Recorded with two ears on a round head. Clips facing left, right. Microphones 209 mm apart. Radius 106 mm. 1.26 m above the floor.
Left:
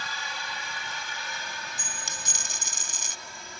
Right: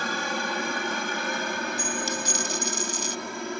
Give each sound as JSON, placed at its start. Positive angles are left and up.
{"t": 0.0, "sound": "a helicopter", "side_deg": -50}
{"t": 1.8, "sound": "a dropped coin", "side_deg": 45}